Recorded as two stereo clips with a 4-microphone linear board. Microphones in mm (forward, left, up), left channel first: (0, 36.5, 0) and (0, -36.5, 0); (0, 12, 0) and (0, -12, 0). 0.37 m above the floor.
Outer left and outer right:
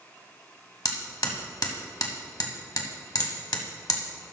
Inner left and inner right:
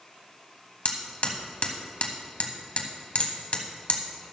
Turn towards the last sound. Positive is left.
turn(degrees=65)  # may be behind; listen again after turning